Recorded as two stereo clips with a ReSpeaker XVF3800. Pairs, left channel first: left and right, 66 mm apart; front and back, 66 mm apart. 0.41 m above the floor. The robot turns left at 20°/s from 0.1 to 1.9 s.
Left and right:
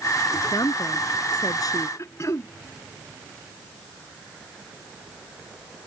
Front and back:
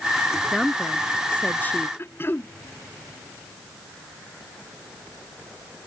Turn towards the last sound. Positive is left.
turn(degrees=55)